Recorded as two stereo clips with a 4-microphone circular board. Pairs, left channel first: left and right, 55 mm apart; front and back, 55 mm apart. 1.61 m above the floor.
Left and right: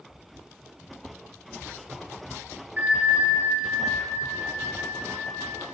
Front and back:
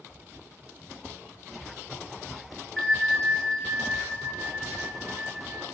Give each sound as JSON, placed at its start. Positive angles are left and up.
{"t": 2.8, "sound": "a bell", "azimuth_deg": -80, "distance_m": 0.9}